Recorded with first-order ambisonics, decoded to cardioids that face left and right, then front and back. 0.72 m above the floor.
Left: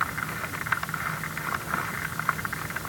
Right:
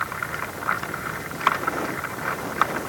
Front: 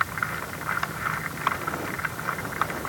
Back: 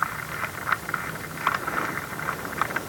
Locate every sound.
Only background noise.